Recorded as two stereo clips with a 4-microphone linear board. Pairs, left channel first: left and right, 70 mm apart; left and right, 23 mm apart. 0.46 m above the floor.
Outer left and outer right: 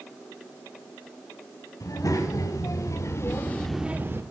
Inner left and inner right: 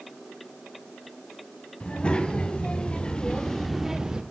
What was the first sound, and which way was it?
A child speaking, 60° left (ahead or behind).